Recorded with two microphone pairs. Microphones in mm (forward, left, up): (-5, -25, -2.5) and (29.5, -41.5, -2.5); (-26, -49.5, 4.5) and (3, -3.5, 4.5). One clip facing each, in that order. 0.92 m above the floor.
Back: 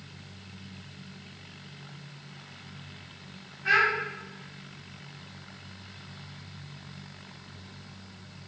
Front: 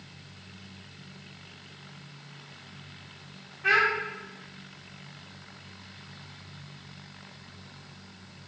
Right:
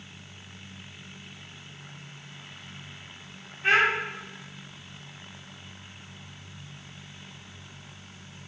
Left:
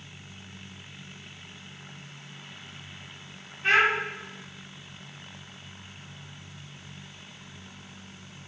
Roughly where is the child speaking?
Ahead right.